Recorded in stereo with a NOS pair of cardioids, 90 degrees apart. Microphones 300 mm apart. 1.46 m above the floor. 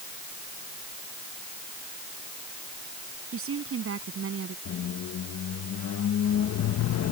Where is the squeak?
60° left.